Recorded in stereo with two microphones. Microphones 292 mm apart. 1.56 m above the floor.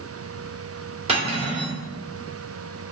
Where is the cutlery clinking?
20° right (ahead or behind), 3 m.